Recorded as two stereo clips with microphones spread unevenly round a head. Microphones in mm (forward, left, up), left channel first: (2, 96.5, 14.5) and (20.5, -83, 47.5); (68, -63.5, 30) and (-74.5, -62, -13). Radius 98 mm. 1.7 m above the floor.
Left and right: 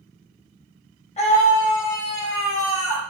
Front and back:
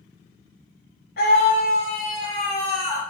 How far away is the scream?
About 3.5 m.